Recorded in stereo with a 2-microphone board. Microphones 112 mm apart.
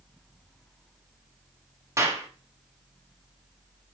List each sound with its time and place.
2.0 s a clap: 25° right (ahead or behind), 1.3 m